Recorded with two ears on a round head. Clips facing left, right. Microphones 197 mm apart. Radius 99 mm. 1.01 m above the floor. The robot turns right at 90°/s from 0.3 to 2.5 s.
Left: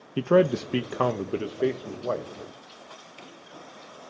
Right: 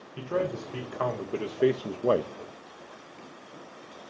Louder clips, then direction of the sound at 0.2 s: Left 9 dB; 65° left.